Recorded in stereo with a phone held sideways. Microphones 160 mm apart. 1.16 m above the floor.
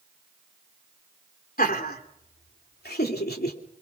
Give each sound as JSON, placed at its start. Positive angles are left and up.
{"t": 1.6, "sound": "laughter", "side_deg": 70, "distance_m": 3.5}